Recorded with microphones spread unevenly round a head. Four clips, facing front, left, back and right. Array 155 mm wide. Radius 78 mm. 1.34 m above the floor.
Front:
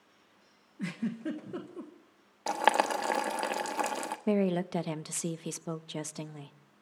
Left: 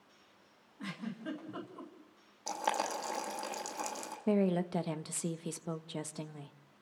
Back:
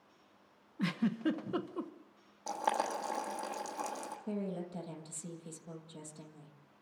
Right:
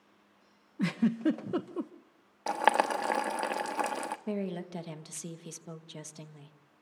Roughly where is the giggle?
Right.